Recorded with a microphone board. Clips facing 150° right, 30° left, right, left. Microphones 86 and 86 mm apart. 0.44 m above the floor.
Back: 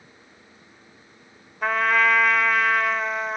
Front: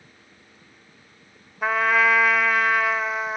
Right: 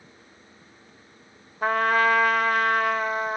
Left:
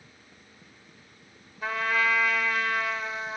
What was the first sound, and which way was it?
A trumpet, 55° right.